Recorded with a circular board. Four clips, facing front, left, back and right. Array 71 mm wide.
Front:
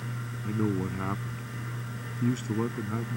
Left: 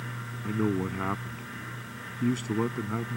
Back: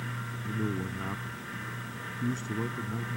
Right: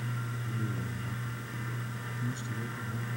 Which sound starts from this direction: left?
A man speaking, at 0.4 s.